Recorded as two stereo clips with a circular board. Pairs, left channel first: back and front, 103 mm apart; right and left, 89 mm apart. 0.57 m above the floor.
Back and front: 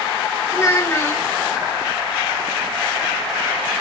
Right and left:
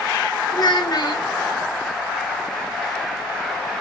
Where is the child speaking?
120° right, 0.8 m.